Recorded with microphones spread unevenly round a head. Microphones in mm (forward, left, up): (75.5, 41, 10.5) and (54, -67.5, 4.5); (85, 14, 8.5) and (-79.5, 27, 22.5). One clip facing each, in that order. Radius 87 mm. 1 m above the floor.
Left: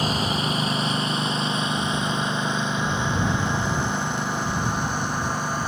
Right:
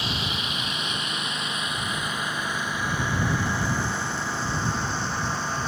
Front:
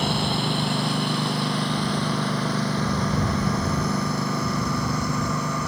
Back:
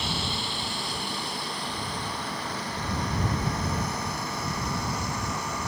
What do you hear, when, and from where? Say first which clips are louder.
0.0 s a lawn mower: left 7 dB, front 8 dB; 35° left; by 5.7 s straight ahead